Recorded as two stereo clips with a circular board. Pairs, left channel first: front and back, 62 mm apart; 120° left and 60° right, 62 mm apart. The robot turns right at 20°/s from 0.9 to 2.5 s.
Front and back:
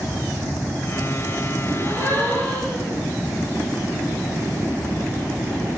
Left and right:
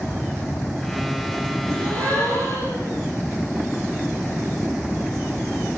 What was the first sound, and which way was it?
A gasp, 50° left.